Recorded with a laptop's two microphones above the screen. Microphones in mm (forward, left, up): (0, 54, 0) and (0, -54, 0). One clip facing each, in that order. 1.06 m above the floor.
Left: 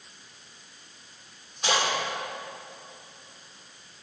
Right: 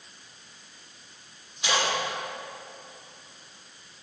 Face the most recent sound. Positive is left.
turn(degrees=45)  # may be behind; listen again after turning